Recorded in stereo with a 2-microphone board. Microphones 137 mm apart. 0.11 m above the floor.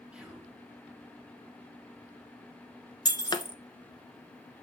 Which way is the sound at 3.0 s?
30° left (ahead or behind).